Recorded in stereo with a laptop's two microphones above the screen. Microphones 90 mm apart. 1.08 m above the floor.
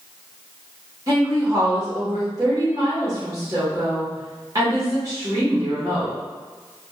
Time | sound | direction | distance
1.1 | a woman speaking | 40° right (ahead or behind) | 1.5 m